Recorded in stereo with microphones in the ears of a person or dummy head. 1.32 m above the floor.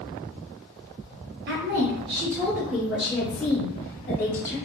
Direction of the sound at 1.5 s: 50° right (ahead or behind).